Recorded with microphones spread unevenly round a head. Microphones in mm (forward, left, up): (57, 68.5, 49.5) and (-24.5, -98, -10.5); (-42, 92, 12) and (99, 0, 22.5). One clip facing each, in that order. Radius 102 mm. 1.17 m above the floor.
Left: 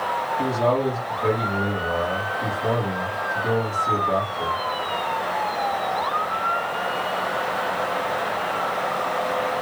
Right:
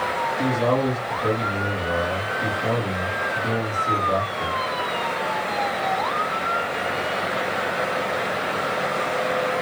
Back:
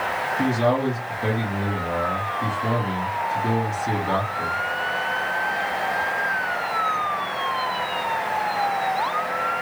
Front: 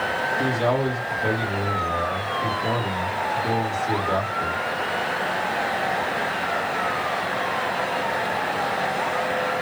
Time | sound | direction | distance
0.4 | a man speaking | 155° left | 1.5 m